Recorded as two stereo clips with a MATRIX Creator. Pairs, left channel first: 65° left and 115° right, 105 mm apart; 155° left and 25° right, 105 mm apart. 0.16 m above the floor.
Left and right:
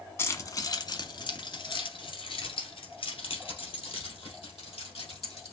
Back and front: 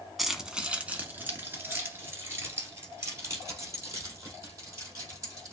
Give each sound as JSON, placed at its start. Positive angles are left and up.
{"t": 0.2, "sound": "keys jangling", "azimuth_deg": 65, "distance_m": 0.9}